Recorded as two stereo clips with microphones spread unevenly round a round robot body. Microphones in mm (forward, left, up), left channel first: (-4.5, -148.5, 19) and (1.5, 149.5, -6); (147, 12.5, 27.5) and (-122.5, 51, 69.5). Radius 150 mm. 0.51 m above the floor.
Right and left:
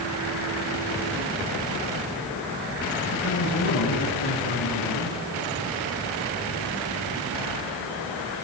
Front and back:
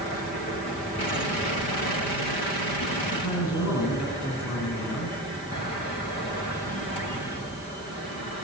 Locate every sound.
3.1 s a man speaking: 40° right, 6.5 m